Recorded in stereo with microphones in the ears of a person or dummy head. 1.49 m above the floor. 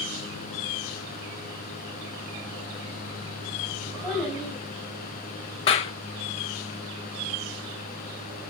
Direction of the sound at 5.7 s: 35° left (ahead or behind).